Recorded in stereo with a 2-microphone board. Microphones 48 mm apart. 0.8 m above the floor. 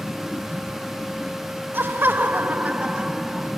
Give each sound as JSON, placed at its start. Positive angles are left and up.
{"t": 1.7, "sound": "laughter", "side_deg": -50, "distance_m": 1.0}